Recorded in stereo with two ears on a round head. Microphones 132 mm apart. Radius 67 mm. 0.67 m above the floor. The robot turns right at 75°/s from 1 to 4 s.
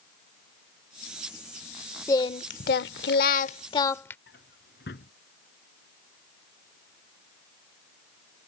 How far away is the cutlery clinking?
I don't hear cutlery clinking.